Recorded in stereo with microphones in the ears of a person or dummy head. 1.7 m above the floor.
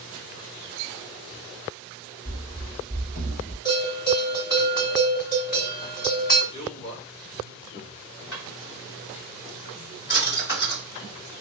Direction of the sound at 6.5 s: 45° left (ahead or behind).